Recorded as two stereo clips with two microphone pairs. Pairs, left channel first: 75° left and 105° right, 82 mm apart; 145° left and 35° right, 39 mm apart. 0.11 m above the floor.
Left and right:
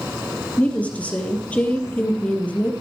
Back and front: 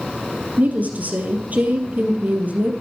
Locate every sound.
0.6 s a woman speaking: 5° left, 3 m